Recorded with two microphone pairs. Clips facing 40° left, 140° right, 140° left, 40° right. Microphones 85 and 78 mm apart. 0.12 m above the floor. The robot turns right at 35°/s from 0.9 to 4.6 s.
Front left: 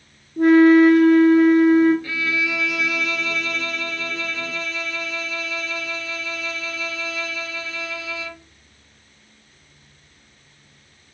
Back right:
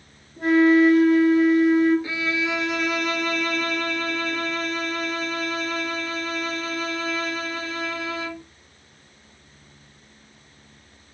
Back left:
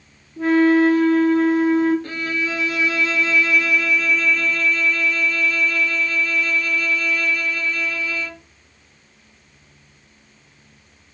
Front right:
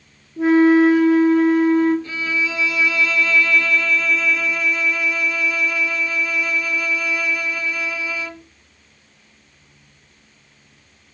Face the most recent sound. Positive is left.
turn(degrees=-115)